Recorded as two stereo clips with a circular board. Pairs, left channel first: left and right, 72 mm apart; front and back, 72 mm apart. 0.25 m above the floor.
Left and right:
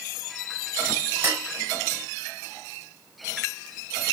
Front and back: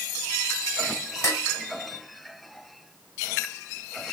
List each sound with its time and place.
1.2 s dishes clattering: 30° right, 1.0 m